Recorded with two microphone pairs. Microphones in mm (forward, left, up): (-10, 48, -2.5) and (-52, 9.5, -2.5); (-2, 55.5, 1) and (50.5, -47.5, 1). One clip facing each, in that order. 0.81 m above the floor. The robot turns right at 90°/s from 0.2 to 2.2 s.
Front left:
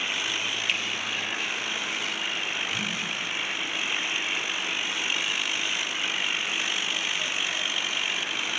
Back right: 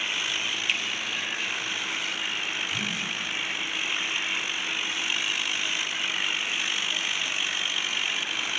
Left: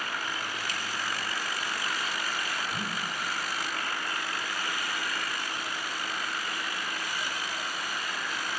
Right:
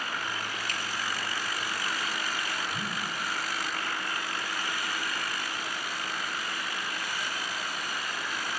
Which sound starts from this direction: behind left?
A whoosh, at 2.7 s.